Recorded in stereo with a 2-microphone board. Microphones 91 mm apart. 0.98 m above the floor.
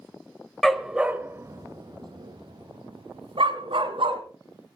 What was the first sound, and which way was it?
A dog barking, 5° left (ahead or behind).